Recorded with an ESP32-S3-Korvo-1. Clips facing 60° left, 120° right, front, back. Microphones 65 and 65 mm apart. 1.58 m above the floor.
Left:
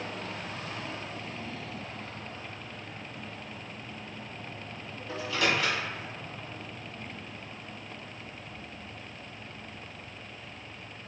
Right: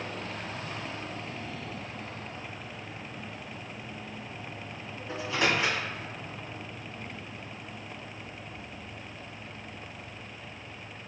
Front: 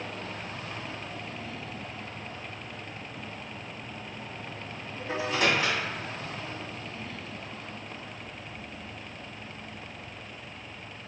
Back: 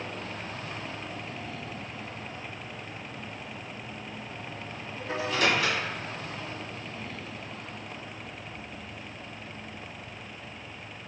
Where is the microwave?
55° right, 1.5 m.